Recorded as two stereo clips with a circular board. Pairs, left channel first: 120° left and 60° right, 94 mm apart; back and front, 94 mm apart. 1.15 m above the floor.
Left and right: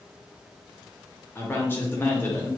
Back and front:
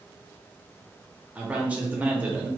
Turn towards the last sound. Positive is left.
turn(degrees=65)